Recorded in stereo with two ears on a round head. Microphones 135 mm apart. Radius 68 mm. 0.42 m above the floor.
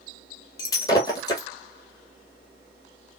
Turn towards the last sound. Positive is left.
turn(degrees=25)  # may be behind; listen again after turning